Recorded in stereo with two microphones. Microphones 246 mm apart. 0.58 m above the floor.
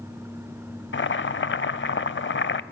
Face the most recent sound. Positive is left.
turn(degrees=50)  # may be behind; listen again after turning